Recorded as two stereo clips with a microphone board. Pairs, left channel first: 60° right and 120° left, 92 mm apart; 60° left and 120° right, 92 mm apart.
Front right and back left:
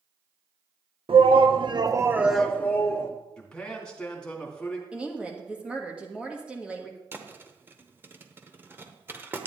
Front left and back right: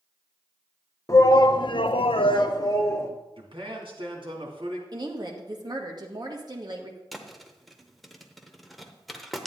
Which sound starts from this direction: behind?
A woman speaking, at 4.9 s.